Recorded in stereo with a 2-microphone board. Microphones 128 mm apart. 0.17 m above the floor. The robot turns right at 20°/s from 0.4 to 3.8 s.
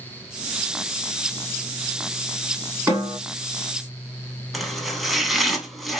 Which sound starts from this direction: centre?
Chopping, at 4.5 s.